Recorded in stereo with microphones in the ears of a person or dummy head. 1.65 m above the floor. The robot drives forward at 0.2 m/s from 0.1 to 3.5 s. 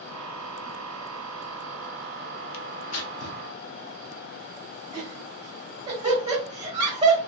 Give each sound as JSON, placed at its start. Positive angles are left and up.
{"t": 2.5, "sound": "tearing paper", "side_deg": 75, "distance_m": 0.5}
{"t": 4.9, "sound": "laughter", "side_deg": -35, "distance_m": 1.5}